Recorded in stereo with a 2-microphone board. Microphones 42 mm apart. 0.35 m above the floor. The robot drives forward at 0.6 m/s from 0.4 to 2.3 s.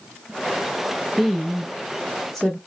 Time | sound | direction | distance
1.2 | a woman speaking | 5° left (ahead or behind) | 0.9 m